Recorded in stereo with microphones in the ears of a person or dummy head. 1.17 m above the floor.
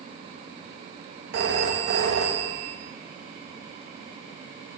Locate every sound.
1.3 s a phone ringing: 55° right (ahead or behind), 0.8 m